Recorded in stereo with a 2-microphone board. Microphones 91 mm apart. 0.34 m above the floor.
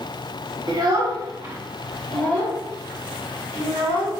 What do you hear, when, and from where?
0.7 s a child speaking: 55° right (ahead or behind), 0.8 m; by 4.1 s 65° left (ahead or behind), 1.2 m